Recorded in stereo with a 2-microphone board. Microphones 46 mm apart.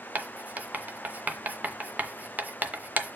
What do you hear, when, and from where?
0.1 s writing: 35° right (ahead or behind), 0.9 m